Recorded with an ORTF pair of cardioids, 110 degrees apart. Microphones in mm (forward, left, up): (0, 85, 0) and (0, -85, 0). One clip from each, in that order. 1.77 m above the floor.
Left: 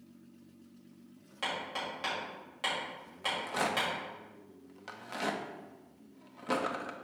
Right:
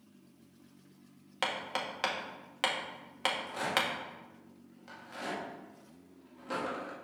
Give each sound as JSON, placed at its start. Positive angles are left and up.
{"t": 1.4, "sound": "hammering", "azimuth_deg": -60, "distance_m": 1.6}
{"t": 3.2, "sound": "a rattle", "azimuth_deg": 45, "distance_m": 1.0}